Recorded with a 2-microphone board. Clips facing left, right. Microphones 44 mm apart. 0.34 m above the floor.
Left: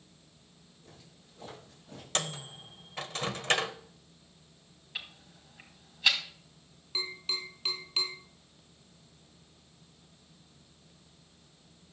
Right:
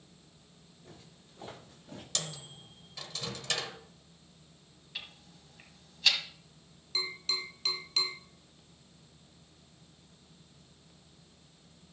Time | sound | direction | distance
0.8 | footsteps | 25° right (ahead or behind) | 8.5 m
2.1 | a microwave | 40° left (ahead or behind) | 0.9 m
5.0 | ticking | 20° left (ahead or behind) | 2 m
7.0 | tapping | 10° left (ahead or behind) | 4.5 m